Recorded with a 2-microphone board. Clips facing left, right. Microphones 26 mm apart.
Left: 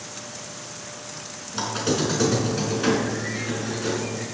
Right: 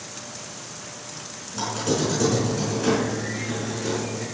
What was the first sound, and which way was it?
A squeak, 40° left (ahead or behind).